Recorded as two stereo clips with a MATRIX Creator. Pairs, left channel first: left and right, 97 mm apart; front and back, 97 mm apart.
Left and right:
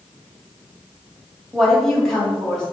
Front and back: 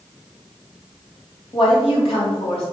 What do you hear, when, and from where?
1.5 s a woman speaking: 5° left, 1.9 m